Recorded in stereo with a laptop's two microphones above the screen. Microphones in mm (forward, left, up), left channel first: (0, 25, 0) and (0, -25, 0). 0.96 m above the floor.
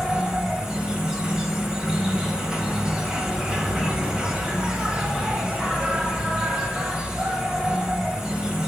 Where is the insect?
15° right (ahead or behind), 1.7 m.